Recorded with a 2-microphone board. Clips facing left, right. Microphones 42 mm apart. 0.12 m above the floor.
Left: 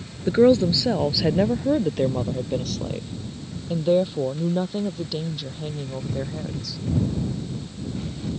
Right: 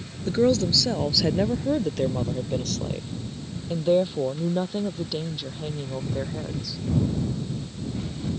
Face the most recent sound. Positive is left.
turn(degrees=-5)  # may be behind; listen again after turning